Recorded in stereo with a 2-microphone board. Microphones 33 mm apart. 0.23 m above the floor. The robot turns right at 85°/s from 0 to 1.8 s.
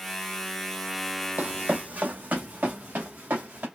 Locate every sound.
1.4 s running footsteps: 65° right (ahead or behind), 0.6 m; by 3.7 s 75° right (ahead or behind), 2.5 m